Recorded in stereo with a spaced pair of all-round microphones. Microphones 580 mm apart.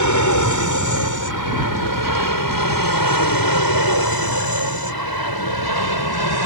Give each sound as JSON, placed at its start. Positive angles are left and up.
{"t": 0.0, "sound": "an aircraft", "side_deg": 30}